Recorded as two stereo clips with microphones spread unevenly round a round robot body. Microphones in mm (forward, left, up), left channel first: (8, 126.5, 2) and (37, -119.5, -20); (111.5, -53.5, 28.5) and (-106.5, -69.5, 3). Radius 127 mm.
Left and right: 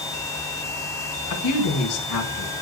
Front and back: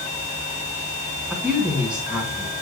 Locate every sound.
1.3 s a woman speaking: 100° left, 3.5 m